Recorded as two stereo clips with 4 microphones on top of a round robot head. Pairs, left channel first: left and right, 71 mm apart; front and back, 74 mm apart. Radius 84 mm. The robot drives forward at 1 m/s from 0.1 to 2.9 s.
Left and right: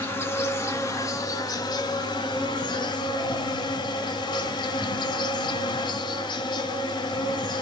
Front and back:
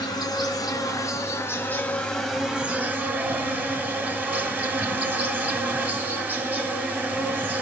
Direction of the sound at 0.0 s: 35° left.